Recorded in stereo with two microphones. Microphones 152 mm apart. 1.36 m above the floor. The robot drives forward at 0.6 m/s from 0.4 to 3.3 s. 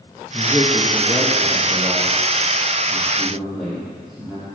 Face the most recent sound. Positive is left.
turn(degrees=0)  # may be behind; listen again after turning